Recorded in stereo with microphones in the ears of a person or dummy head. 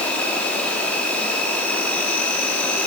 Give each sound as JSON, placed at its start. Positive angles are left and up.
{"t": 0.0, "sound": "an insect", "side_deg": 10, "distance_m": 5.0}